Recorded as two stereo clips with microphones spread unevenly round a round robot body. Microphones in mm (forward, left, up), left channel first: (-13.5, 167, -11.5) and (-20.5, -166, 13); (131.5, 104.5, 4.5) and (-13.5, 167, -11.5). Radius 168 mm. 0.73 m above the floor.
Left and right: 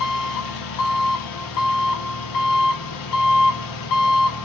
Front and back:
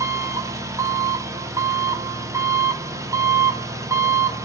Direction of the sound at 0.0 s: 90° left.